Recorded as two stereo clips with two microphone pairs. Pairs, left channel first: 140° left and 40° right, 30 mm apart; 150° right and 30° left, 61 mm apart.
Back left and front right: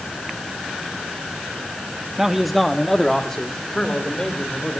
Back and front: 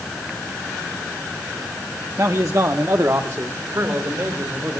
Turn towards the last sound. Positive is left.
turn(degrees=75)